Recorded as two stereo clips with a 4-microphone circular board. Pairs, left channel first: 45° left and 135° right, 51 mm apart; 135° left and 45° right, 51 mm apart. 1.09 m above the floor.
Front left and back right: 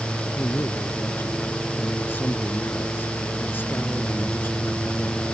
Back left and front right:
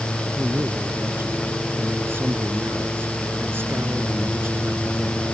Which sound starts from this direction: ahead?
A man speaking, at 0.4 s.